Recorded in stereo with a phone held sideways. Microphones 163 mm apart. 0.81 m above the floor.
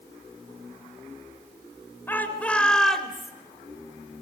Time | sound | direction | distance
2.1 | a shout | 10° left (ahead or behind) | 4 m